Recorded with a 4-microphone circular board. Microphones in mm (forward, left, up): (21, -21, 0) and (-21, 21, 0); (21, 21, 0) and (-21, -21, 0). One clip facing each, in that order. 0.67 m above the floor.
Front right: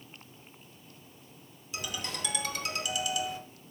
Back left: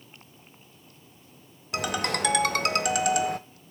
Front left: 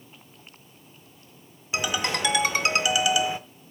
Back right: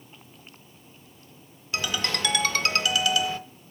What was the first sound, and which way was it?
A ringtone, 115° left.